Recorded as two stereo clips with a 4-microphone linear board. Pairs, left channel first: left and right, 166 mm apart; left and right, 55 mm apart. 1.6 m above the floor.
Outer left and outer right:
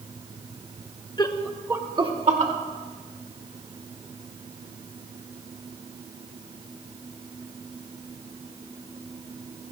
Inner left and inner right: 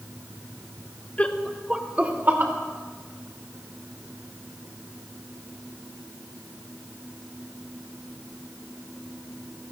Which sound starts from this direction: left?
Laughter, at 1.2 s.